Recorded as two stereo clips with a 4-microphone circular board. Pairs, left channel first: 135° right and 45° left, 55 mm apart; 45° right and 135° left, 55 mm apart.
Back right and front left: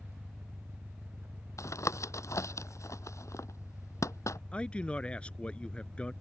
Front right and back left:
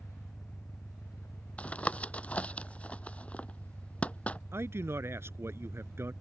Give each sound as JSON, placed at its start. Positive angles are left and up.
{"t": 0.0, "sound": "an engine running", "azimuth_deg": -15}
{"t": 1.6, "sound": "tapping", "azimuth_deg": -115}
{"t": 4.5, "sound": "a man speaking", "azimuth_deg": 160}